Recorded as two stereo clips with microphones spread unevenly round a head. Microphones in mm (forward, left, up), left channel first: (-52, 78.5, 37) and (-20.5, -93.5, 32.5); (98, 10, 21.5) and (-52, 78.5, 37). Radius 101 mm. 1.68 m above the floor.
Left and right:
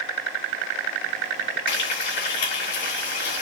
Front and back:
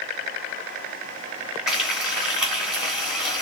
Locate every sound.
1.7 s frying: 75° left, 2 m